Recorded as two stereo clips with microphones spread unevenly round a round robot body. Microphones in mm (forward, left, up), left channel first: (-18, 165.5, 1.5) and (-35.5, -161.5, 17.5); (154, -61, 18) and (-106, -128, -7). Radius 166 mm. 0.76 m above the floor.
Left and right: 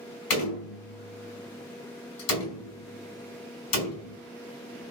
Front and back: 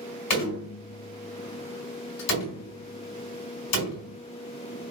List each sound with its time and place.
0.3 s a door slam: 35° left, 4 m